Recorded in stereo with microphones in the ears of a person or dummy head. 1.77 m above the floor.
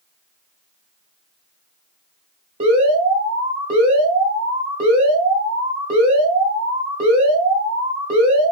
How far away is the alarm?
About 1.5 m.